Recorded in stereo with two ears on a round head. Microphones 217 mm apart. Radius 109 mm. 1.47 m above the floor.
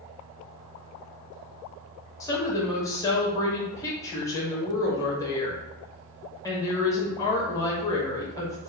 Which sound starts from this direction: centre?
A woman speaking, at 2.2 s.